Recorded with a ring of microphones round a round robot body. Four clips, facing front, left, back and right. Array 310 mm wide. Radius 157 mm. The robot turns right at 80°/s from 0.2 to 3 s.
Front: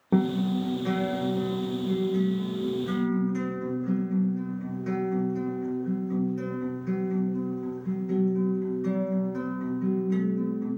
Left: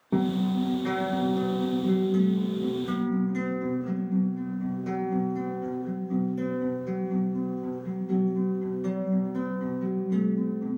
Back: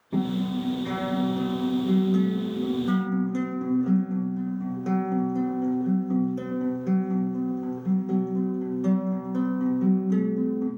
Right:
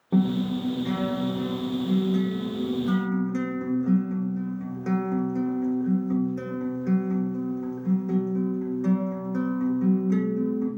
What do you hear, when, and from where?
0.1 s a guitar: straight ahead, 0.6 m; by 10.7 s 135° right, 0.6 m